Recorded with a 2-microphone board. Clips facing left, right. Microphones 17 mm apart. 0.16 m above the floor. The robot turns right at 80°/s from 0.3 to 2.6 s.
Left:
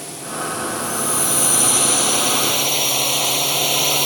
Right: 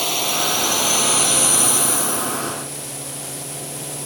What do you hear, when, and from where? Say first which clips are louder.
0.0 s a drone: right 7 dB; 105° right; by 4.1 s 80° left